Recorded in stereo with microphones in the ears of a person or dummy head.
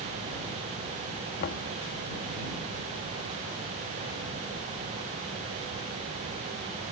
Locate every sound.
1.4 s knocking: 50° left (ahead or behind)